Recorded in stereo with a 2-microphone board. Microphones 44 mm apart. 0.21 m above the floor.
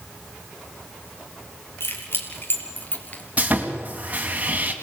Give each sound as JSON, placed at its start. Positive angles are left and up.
{"t": 1.8, "sound": "keys jangling", "side_deg": 55, "distance_m": 3.5}
{"t": 3.4, "sound": "sawing", "side_deg": -35, "distance_m": 2.0}